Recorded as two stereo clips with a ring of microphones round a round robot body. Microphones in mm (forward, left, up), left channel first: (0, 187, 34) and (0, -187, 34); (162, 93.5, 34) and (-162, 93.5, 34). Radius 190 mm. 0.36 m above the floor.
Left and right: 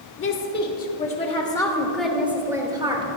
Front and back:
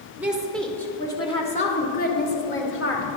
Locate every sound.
0.2 s a woman speaking: 100° left, 1.4 m; by 3.1 s 20° right, 1.6 m